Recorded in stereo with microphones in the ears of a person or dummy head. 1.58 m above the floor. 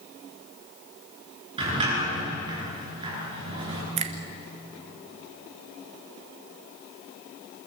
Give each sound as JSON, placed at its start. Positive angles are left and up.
{"t": 1.6, "sound": "a sliding door", "side_deg": -35, "distance_m": 10.0}
{"t": 4.0, "sound": "a finger snap", "side_deg": -30, "distance_m": 1.3}